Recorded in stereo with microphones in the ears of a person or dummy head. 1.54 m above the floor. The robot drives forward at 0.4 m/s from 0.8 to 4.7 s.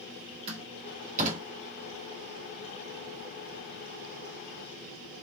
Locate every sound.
0.5 s a door slam: 40° right (ahead or behind), 2 m